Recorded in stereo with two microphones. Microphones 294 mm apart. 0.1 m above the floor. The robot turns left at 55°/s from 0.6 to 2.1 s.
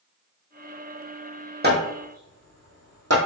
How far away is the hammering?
About 1.4 m.